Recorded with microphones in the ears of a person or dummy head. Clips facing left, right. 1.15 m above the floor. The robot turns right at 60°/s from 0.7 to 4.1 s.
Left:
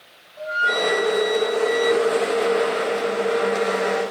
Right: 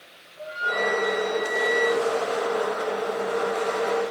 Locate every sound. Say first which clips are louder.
0.4 s a flute: left 4 dB; 80° left, 3 m; by 2.0 s 160° left, 3 m